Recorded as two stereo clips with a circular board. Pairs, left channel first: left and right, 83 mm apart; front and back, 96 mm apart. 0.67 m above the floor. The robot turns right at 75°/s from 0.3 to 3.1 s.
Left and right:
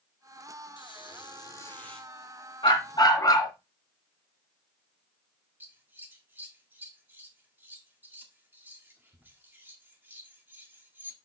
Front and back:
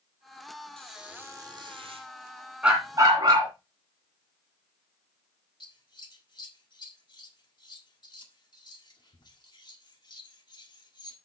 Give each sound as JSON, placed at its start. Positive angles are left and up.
{"t": 0.8, "sound": "a squeak", "azimuth_deg": 85, "distance_m": 2.5}
{"t": 2.6, "sound": "a dog barking", "azimuth_deg": 100, "distance_m": 3.0}
{"t": 5.6, "sound": "scissors", "azimuth_deg": -25, "distance_m": 1.5}